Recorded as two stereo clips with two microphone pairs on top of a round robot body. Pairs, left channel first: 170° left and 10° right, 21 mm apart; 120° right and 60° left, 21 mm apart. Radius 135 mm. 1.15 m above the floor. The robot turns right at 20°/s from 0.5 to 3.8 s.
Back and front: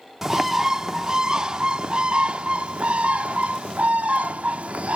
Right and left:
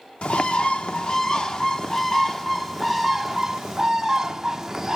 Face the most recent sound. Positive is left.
turn(degrees=-10)